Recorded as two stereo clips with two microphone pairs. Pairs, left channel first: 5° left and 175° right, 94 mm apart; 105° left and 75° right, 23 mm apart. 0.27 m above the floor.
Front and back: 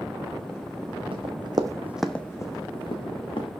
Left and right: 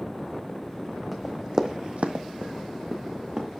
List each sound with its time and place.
1.1 s running footsteps: 150° right, 1.3 m; by 3.5 s 20° right, 2 m